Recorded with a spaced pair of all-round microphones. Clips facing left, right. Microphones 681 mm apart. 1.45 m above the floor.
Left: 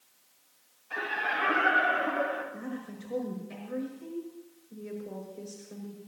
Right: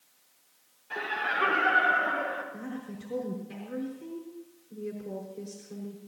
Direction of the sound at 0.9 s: 75° right (ahead or behind).